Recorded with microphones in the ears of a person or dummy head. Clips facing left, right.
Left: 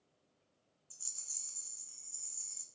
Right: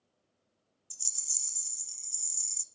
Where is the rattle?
45° right (ahead or behind), 0.5 m.